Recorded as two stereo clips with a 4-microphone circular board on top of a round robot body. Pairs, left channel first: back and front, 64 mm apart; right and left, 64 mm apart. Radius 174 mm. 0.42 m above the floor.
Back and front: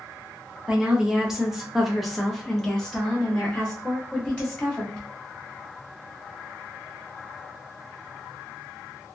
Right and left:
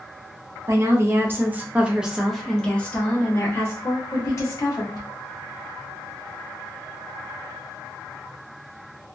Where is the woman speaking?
75° left, 1.3 m; by 5.1 s 110° right, 1.7 m.